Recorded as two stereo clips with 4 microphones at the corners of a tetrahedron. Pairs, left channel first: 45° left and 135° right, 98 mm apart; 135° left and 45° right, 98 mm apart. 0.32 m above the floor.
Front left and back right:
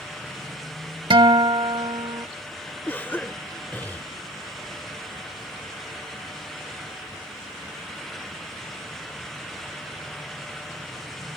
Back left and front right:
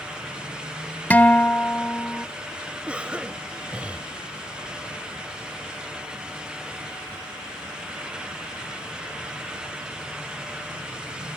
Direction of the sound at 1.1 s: 155° right.